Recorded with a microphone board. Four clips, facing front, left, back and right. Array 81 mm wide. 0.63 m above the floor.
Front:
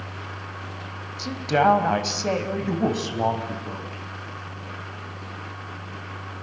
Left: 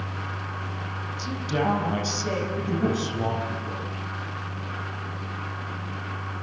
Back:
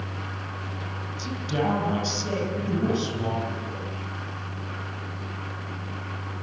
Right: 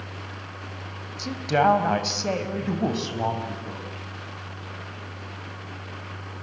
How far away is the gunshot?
I don't hear a gunshot.